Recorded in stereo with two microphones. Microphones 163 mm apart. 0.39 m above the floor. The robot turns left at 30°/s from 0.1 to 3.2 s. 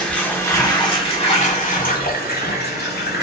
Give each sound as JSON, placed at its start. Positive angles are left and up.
{"t": 0.0, "sound": "running water", "azimuth_deg": 175, "distance_m": 0.8}